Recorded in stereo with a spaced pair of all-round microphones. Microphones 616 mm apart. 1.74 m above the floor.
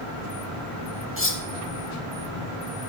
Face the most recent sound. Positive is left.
turn(degrees=20)  # may be behind; listen again after turning